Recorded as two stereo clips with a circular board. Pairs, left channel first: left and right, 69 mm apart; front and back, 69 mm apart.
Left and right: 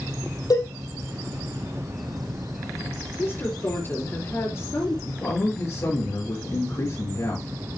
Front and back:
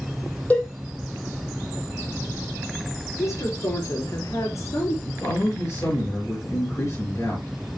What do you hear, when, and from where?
0.5 s a cowbell: 65° left, 4.5 m
3.2 s a woman speaking: 40° left, 4.5 m
5.0 s a man speaking: 50° left, 5.5 m